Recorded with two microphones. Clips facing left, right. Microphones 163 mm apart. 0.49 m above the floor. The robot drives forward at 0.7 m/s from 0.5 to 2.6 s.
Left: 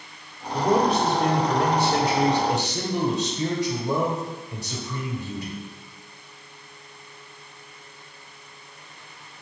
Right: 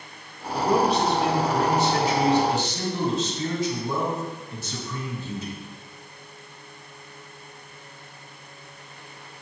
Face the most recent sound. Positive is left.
turn(degrees=65)  # may be behind; listen again after turning